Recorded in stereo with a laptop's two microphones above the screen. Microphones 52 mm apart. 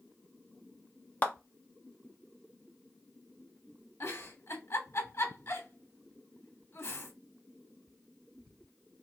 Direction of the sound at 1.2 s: 30° left (ahead or behind).